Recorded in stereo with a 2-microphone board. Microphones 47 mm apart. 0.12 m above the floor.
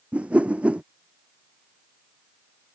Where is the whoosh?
30° right (ahead or behind).